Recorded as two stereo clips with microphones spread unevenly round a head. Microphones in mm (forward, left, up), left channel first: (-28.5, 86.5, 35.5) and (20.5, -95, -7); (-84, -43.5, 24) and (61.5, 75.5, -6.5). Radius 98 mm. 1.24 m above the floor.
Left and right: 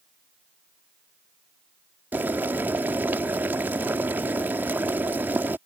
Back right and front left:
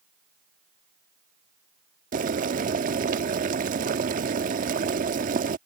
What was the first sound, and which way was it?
Boiling, 25° left.